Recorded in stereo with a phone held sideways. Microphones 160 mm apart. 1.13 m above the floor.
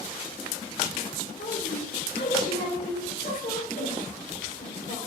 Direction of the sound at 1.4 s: 85° left.